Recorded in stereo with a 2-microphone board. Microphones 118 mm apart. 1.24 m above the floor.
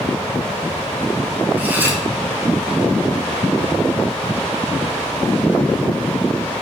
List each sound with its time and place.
1.6 s cutlery clinking: 15° right (ahead or behind), 0.5 m